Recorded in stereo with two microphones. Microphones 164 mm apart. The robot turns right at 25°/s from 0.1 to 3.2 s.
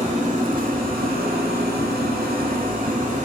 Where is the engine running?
130° right, 0.9 m; by 3.3 s 50° right, 0.9 m.